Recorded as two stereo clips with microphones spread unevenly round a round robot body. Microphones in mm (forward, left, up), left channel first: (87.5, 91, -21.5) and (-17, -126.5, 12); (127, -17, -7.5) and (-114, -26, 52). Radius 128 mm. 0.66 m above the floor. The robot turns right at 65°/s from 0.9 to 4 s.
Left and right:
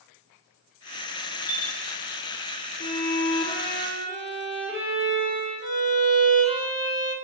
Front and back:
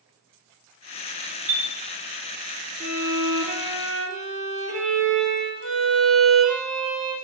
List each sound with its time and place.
1.5 s a chime: 115° left, 2.5 m; by 1.7 s 130° left, 2.5 m
2.8 s a violin: 115° left, 2 m; by 7.1 s 165° right, 2 m